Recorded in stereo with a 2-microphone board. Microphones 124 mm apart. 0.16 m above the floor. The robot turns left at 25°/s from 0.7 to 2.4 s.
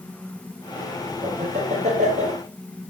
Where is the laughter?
70° right (ahead or behind), 4.5 m.